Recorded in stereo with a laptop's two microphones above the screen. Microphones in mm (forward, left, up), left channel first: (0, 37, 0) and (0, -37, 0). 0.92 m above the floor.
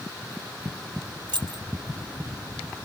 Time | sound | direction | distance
1.3 | keys jangling | 90° right | 0.6 m